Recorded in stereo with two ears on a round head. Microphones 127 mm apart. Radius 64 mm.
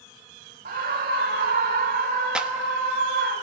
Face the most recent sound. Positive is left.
turn(degrees=-5)  # may be behind; listen again after turning